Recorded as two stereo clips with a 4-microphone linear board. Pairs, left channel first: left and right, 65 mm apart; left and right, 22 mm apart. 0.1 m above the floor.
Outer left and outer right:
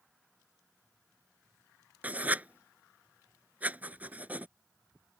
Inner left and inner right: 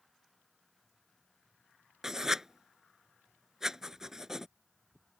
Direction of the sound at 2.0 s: 25° right (ahead or behind).